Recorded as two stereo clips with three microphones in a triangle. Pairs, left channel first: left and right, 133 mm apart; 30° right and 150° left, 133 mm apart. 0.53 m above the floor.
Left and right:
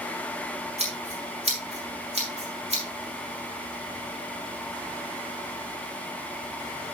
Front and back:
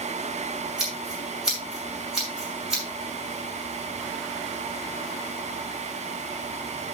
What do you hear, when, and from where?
0.8 s scissors: 125° right, 6.5 m